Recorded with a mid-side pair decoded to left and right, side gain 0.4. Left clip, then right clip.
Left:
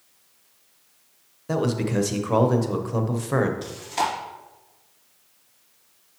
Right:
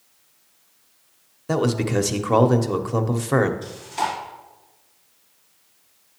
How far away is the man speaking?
About 0.9 m.